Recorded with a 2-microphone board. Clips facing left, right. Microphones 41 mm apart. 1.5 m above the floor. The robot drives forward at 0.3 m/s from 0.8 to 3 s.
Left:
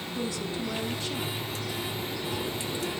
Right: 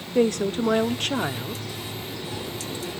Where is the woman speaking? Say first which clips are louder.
Right 12 dB; 55° right (ahead or behind), 0.8 m; by 1.6 s 70° right (ahead or behind), 0.8 m.